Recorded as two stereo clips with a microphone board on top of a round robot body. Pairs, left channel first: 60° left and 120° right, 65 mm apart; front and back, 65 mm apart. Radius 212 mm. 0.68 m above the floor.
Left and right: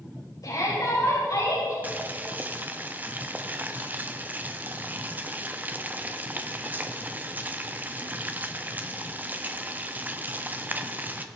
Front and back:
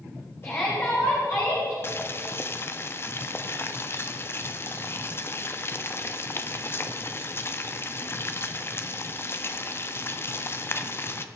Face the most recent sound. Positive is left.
turn(degrees=-55)